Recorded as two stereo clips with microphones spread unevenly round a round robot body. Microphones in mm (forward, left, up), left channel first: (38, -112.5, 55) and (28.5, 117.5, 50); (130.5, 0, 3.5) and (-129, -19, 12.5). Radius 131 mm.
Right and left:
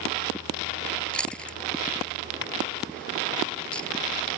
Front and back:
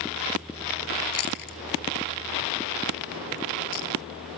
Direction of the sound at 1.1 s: Straight ahead.